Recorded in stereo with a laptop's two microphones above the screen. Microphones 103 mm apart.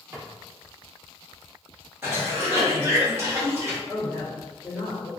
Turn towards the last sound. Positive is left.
turn(degrees=-20)  # may be behind; listen again after turning